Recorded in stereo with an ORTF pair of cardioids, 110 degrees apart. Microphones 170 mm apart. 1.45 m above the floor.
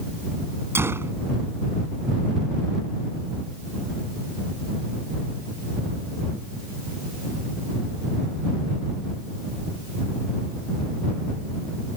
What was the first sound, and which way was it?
A gunshot, 15° right.